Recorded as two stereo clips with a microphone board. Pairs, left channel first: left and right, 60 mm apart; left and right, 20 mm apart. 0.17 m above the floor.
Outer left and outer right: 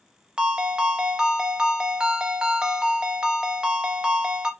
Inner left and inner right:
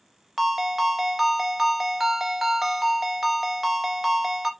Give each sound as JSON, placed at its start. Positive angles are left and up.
{"t": 0.4, "sound": "a ringtone", "side_deg": -15, "distance_m": 0.5}